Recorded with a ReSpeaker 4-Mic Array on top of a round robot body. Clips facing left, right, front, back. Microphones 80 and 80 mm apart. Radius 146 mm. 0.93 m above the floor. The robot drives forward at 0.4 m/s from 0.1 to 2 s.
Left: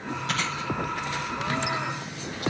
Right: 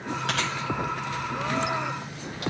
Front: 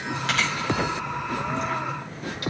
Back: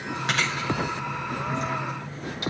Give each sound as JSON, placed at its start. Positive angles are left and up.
{"t": 0.3, "sound": "chewing", "azimuth_deg": -105, "distance_m": 5.5}